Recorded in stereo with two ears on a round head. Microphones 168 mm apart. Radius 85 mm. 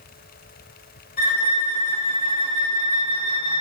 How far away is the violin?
About 2 m.